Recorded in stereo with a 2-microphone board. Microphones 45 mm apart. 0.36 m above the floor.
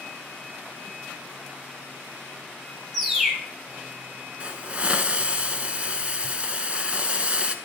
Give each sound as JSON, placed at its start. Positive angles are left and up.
{"t": 2.9, "sound": "a bird", "side_deg": -10, "distance_m": 1.3}
{"t": 4.4, "sound": "a hiss", "side_deg": -30, "distance_m": 0.8}